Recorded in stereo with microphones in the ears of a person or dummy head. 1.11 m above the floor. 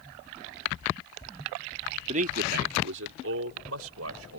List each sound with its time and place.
2.1 s a man speaking: 40° right (ahead or behind); by 4.4 s 85° right